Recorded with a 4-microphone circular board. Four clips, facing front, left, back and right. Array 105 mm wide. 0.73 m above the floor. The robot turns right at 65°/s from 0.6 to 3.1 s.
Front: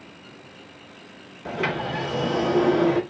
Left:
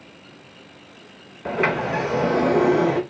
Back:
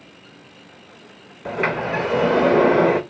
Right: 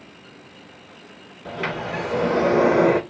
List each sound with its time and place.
1.4 s a sliding door: 120° left, 0.6 m; by 3.0 s 140° right, 0.6 m